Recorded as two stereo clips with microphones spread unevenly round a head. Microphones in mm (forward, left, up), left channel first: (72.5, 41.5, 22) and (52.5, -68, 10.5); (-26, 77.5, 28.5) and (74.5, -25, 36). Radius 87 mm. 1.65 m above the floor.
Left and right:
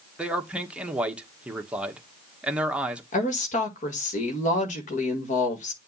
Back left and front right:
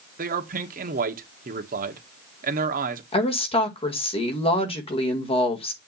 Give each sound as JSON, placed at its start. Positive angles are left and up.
{"t": 0.2, "sound": "a man speaking", "azimuth_deg": -20, "distance_m": 1.4}
{"t": 3.1, "sound": "a woman speaking", "azimuth_deg": 85, "distance_m": 1.9}